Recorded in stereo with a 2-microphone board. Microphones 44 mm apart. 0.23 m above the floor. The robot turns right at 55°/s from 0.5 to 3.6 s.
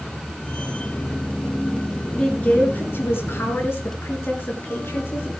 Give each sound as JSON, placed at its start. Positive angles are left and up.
{"t": 2.1, "sound": "a woman speaking", "side_deg": 20, "distance_m": 3.5}